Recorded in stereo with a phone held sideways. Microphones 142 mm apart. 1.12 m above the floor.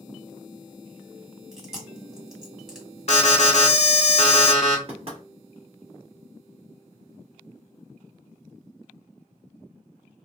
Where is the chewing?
5° right (ahead or behind), 1.3 m.